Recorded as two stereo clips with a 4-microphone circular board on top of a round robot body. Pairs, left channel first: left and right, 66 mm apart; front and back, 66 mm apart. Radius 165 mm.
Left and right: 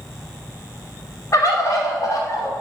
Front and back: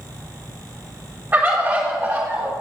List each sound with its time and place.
1.3 s a bird: 115° left, 2.5 m